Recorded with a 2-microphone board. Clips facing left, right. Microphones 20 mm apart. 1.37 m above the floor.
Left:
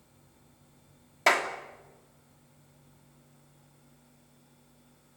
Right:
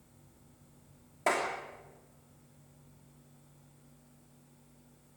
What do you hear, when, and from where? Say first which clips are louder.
1.3 s a clap: left 6 dB; 75° left (ahead or behind), 3 m